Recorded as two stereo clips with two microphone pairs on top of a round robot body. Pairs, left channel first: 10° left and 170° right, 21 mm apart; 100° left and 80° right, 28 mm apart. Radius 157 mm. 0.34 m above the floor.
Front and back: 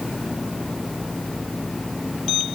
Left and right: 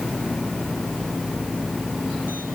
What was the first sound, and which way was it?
Only background noise.